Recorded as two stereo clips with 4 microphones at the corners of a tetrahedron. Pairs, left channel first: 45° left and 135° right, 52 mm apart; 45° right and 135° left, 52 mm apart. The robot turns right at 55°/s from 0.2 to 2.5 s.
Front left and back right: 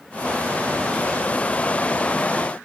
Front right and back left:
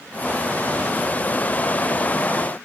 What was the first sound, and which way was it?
Only background noise.